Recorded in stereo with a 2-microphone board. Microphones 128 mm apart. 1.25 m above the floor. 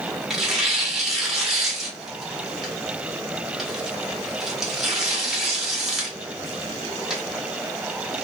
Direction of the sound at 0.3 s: 5° right (ahead or behind).